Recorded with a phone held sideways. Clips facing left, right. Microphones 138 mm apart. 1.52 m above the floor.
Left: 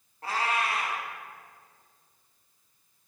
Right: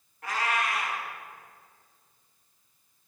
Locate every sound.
0.2 s a cat meowing: 30° left (ahead or behind), 0.9 m